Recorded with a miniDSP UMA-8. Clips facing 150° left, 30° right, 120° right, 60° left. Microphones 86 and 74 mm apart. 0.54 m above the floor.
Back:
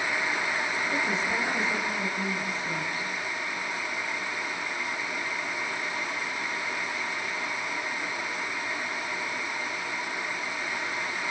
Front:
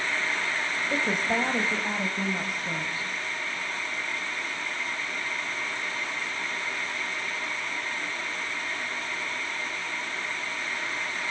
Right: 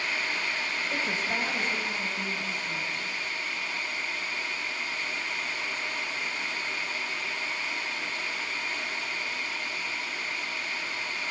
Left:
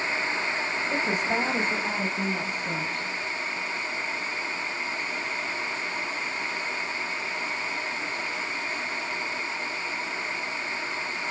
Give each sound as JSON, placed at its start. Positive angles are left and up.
{"t": 0.9, "sound": "a woman speaking", "azimuth_deg": -15, "distance_m": 2.5}